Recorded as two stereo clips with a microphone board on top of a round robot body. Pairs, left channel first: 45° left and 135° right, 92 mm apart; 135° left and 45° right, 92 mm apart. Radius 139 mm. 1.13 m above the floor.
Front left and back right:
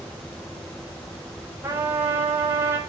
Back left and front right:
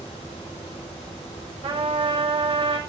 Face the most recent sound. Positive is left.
turn(degrees=-65)